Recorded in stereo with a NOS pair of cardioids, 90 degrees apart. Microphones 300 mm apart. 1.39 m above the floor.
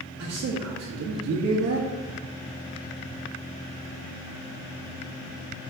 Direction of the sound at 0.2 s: 55° right.